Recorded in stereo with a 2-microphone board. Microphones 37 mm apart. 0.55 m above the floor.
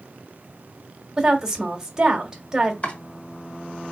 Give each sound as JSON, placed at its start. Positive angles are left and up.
{"t": 1.2, "sound": "a woman speaking", "side_deg": -15, "distance_m": 1.4}
{"t": 2.8, "sound": "chopping", "side_deg": 35, "distance_m": 1.5}